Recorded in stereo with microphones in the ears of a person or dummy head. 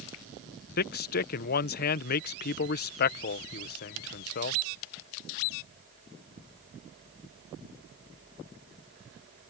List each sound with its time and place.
0.8 s a man speaking: 50° left (ahead or behind)